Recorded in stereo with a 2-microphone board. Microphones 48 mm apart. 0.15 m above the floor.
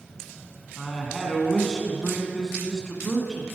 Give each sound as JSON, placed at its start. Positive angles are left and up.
{"t": 0.8, "sound": "a woman speaking", "side_deg": 10, "distance_m": 1.7}